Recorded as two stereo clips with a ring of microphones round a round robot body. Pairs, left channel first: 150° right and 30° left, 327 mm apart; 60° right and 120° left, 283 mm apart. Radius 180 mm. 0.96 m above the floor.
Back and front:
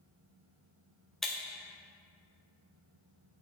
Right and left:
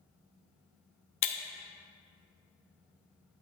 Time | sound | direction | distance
1.2 | breaking glass | 60° right | 0.6 m